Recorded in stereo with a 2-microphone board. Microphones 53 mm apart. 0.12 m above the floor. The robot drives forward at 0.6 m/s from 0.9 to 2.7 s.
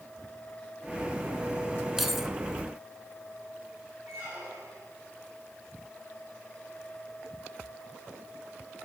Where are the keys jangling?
5° right (ahead or behind), 0.7 m.